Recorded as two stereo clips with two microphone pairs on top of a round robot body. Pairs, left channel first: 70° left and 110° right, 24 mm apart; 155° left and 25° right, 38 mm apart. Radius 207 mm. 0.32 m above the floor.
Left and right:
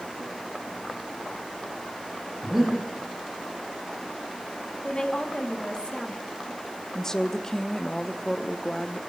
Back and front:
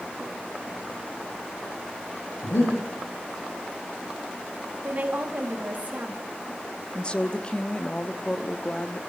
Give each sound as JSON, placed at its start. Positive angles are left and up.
{"t": 2.4, "sound": "breathing", "azimuth_deg": 170, "distance_m": 9.5}
{"t": 4.8, "sound": "a woman speaking", "azimuth_deg": 25, "distance_m": 4.0}
{"t": 7.0, "sound": "a woman speaking", "azimuth_deg": 110, "distance_m": 1.4}